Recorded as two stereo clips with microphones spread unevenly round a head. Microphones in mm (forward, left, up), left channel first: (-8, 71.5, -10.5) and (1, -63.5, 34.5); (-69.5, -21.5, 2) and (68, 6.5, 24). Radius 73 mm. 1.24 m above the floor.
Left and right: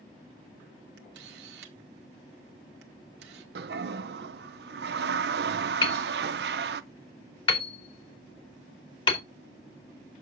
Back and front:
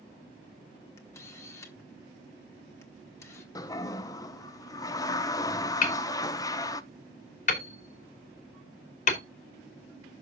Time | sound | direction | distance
1.0 | a camera shutter | 100° right | 1.5 m
3.5 | a toilet flushing | 105° right | 0.6 m
5.8 | hammering | 150° left | 2.5 m